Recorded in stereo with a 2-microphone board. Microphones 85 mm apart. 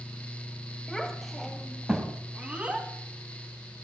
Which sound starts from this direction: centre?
A child speaking, at 0.9 s.